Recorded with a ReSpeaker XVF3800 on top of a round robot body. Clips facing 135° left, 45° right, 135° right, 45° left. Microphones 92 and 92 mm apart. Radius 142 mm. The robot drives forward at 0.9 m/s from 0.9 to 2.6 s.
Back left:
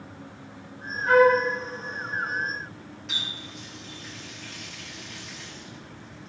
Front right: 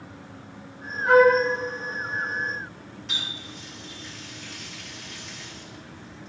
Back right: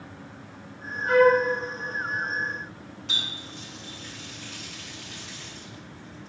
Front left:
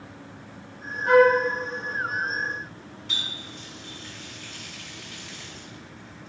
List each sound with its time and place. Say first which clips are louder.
1.1 s a flute: front right 1 dB, front left 1 dB; 30° left, 3.5 m; by 1.4 s 35° left, 3 m
3.1 s a running tap: front right 1 dB, back right 1 dB; 135° right, 1.8 m